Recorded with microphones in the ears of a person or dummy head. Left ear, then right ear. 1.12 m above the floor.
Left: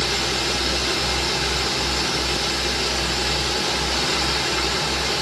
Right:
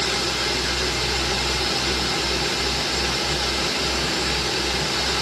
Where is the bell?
I don't hear a bell.